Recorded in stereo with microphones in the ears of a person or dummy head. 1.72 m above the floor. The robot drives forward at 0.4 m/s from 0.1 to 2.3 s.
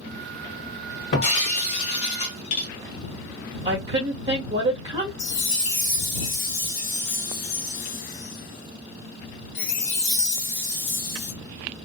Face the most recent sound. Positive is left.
turn(degrees=30)  # may be behind; listen again after turning